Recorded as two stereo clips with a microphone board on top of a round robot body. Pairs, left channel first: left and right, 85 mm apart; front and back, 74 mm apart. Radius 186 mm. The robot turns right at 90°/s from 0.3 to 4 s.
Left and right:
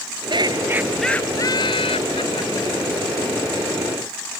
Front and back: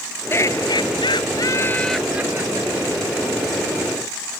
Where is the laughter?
60° right; by 3.1 s 170° right.